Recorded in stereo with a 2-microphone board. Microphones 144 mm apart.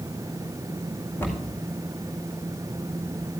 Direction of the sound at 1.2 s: 15° left (ahead or behind).